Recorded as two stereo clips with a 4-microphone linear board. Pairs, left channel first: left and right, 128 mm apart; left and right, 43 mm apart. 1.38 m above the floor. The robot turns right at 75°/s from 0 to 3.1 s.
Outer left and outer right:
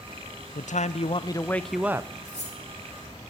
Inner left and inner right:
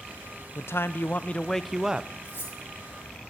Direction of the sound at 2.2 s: 65° left (ahead or behind).